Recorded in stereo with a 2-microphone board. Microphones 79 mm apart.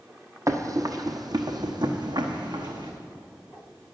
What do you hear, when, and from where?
0.5 s running footsteps: 40° right (ahead or behind), 1.0 m; by 2.9 s 70° right (ahead or behind), 1.8 m